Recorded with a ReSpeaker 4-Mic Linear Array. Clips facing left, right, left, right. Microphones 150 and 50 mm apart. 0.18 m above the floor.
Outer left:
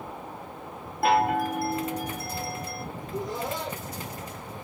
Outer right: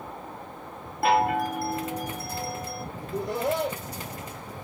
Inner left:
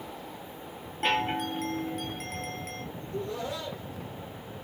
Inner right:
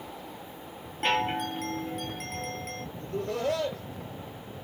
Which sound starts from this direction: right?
Laughter, at 3.0 s.